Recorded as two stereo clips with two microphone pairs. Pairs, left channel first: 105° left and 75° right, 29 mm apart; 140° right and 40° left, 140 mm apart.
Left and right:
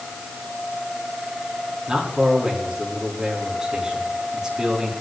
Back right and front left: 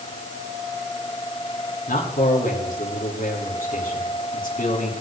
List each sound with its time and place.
1.9 s a man speaking: 145° right, 6 m